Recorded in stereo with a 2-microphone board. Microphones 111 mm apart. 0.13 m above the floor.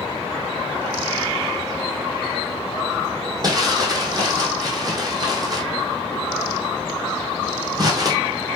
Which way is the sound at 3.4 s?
35° right (ahead or behind).